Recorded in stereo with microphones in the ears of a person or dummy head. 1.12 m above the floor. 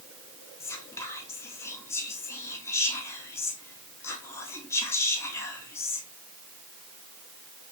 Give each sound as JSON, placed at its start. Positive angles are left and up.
{"t": 0.6, "sound": "whispering", "side_deg": 15, "distance_m": 0.8}